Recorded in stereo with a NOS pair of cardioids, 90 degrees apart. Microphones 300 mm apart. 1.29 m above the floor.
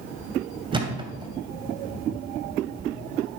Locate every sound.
0.7 s a thud: 15° right, 3 m